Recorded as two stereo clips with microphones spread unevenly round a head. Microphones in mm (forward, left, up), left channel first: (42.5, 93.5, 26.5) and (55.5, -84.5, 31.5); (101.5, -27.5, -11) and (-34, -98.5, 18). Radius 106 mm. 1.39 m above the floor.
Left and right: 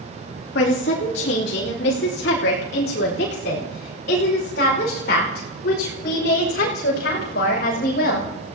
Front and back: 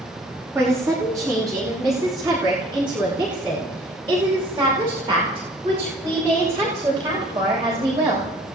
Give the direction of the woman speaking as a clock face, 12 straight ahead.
8 o'clock.